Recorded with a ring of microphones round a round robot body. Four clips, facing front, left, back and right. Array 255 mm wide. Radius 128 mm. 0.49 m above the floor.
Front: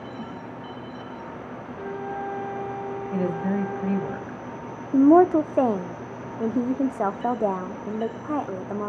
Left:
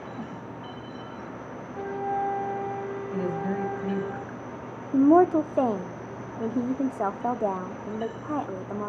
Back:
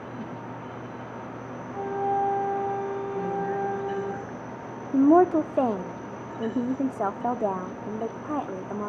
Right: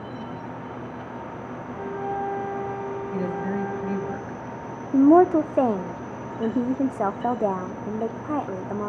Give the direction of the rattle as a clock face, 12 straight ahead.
I don't hear a rattle.